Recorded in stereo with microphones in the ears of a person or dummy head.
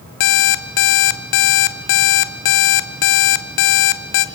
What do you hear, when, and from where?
0.2 s an alarm clock: 45° left (ahead or behind), 0.8 m